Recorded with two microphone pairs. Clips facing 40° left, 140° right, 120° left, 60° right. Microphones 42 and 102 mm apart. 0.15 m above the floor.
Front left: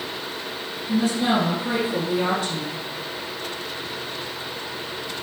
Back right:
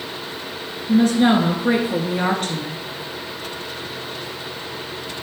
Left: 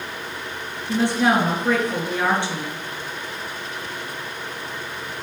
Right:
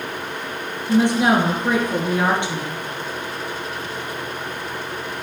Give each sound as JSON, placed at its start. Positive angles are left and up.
{"t": 0.9, "sound": "a woman speaking", "azimuth_deg": -130, "distance_m": 2.0}